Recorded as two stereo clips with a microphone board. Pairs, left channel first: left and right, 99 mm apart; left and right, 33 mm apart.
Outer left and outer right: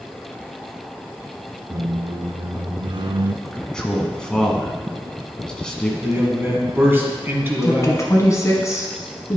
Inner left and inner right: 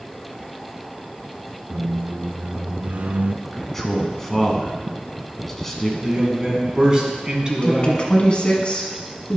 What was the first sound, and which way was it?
A squeak, 60° right (ahead or behind).